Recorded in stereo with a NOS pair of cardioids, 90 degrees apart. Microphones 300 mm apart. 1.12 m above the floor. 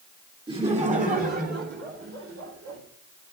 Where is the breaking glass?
I don't hear breaking glass.